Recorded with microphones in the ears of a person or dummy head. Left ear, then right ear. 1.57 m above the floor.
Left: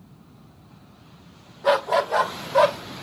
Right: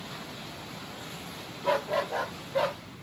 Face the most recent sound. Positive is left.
turn(degrees=70)  # may be behind; listen again after turning